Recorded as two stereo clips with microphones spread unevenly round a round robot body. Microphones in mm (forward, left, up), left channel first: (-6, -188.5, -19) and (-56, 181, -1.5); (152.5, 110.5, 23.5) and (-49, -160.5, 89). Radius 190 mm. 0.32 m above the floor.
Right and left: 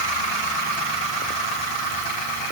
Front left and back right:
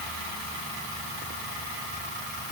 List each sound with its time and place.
Only background noise.